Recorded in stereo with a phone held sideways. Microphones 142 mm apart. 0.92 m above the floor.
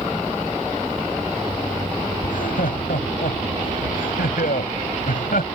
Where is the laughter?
85° left; by 5.5 s 75° left (ahead or behind).